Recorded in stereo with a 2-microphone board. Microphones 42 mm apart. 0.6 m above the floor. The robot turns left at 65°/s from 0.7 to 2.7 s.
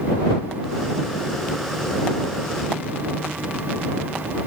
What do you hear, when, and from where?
Only background noise.